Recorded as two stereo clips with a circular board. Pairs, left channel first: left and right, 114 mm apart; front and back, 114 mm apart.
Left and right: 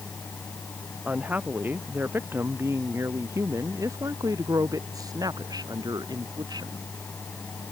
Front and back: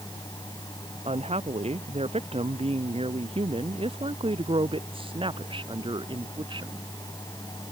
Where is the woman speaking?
165° right; by 6.8 s 140° right.